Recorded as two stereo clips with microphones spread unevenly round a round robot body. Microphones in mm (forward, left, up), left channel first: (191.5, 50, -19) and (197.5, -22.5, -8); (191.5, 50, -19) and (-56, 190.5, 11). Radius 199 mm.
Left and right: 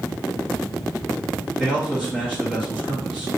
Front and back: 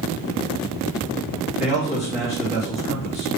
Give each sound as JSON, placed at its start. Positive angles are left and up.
{"t": 1.6, "sound": "a man speaking", "azimuth_deg": 0, "distance_m": 1.7}